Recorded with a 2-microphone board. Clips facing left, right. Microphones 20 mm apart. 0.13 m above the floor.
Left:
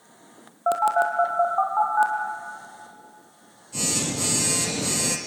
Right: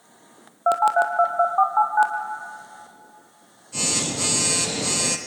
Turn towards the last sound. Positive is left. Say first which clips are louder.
# right 2 dB
turn(degrees=-15)  # may be behind; listen again after turning